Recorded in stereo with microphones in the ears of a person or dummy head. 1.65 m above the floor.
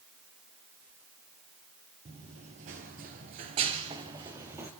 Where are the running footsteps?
30° right (ahead or behind), 2.5 m; by 4.7 s 15° right (ahead or behind), 2.5 m.